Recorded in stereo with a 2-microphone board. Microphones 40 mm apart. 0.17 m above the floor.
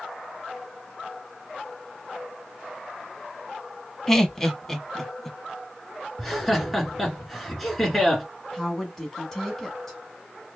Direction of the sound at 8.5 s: 10° left (ahead or behind).